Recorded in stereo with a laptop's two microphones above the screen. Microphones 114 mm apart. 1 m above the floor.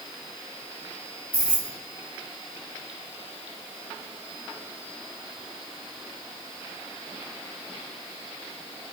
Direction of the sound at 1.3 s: 15° right (ahead or behind).